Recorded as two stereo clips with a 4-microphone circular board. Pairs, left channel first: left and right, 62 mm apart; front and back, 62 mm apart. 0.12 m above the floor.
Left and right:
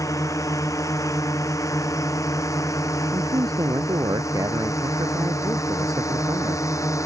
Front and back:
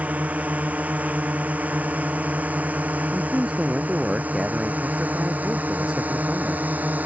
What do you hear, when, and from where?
0.0 s a drone: 115° left
3.1 s a man speaking: 105° right